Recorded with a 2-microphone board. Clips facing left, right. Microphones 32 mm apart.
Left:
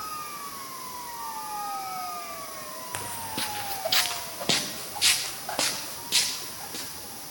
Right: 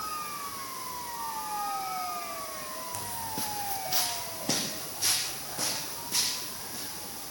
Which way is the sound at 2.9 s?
50° left (ahead or behind).